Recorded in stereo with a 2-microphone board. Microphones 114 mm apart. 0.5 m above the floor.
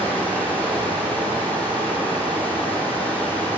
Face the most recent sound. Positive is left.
turn(degrees=15)  # may be behind; listen again after turning